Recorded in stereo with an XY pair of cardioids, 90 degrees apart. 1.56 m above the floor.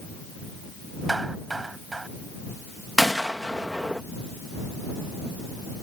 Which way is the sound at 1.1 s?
25° right.